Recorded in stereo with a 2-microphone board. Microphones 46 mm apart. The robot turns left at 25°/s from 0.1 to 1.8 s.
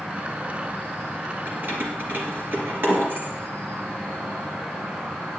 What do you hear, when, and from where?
0.0 s an insect: 30° right, 4 m; by 5.4 s 75° right, 4 m
1.5 s keys jangling: 40° right (ahead or behind), 2.5 m; by 3.3 s 50° right (ahead or behind), 2.5 m